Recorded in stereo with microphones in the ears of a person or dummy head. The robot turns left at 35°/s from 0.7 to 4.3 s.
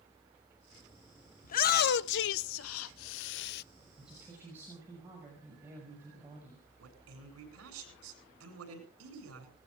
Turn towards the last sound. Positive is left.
turn(degrees=-85)